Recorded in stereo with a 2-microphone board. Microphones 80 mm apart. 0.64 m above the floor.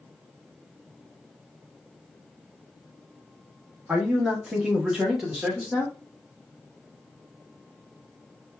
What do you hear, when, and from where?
3.9 s a man speaking: 10° right (ahead or behind), 1.2 m; by 5.9 s centre (ahead or behind), 1.0 m